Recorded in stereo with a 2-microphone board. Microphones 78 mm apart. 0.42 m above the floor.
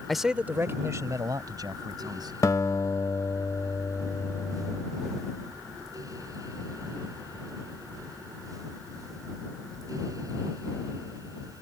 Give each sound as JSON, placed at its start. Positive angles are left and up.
{"t": 0.1, "sound": "a man speaking", "side_deg": 0}
{"t": 2.4, "sound": "a guitar", "side_deg": 45}